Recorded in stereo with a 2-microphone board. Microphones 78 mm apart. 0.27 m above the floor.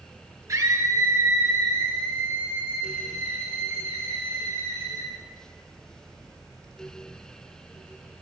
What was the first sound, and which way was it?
A scream, 40° right (ahead or behind).